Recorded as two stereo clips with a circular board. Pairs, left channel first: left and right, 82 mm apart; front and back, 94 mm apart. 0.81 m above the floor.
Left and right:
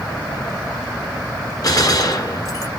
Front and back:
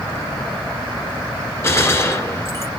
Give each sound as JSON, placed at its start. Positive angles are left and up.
{"t": 1.6, "sound": "a gunshot", "azimuth_deg": 55, "distance_m": 1.5}